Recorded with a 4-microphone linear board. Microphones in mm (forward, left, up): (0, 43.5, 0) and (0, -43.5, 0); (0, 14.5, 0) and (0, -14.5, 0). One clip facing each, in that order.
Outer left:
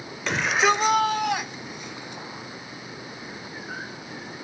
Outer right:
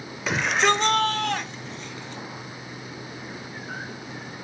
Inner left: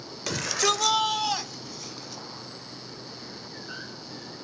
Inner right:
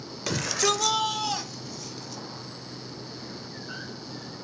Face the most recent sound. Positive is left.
turn(degrees=15)  # may be behind; listen again after turning